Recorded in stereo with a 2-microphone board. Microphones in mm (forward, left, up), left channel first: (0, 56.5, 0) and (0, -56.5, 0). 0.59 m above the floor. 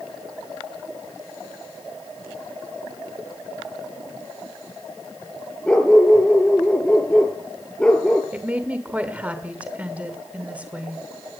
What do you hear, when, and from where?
5.7 s a dog barking: 10° left (ahead or behind), 3 m
8.3 s a woman speaking: 10° right (ahead or behind), 2 m